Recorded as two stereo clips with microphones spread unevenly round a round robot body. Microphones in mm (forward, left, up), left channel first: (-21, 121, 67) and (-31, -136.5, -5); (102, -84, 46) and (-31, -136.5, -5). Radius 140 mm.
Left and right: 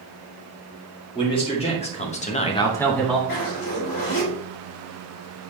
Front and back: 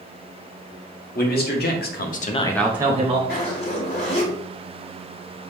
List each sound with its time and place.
1.1 s a man speaking: 15° left, 1.8 m; by 3.2 s 170° right, 1.1 m
3.3 s a zipper: 80° left, 2.5 m